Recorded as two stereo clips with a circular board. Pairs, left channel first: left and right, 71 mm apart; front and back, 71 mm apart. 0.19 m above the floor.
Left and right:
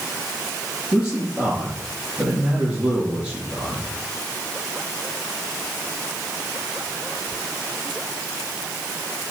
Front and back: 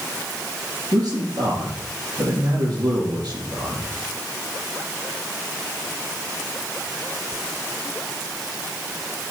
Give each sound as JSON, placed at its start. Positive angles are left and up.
{"t": 0.9, "sound": "a man speaking", "azimuth_deg": -165, "distance_m": 4.0}